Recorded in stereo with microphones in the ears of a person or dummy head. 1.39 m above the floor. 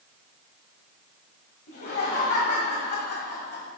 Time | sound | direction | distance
1.7 | laughter | 55° left (ahead or behind) | 2 m